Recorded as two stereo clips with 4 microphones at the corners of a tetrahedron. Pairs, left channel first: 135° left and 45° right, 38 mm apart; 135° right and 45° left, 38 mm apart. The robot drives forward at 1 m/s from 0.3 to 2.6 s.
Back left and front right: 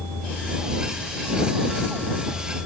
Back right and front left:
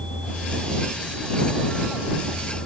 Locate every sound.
Only background noise.